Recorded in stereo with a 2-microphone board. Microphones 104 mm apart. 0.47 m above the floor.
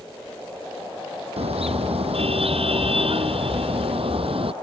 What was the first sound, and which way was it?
A car horn, 70° right (ahead or behind).